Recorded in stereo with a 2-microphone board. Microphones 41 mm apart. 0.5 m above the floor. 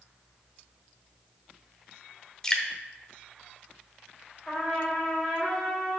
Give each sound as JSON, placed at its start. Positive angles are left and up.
{"t": 2.4, "sound": "dripping", "side_deg": 20, "distance_m": 1.0}
{"t": 4.5, "sound": "a trumpet", "side_deg": 10, "distance_m": 2.5}